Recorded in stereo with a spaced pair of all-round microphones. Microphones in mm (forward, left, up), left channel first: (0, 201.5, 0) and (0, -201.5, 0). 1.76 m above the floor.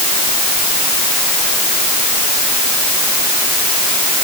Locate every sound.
Only background noise.